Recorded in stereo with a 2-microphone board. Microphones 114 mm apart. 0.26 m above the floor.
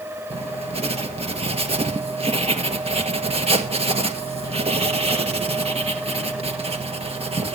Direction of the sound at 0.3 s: 60° right (ahead or behind).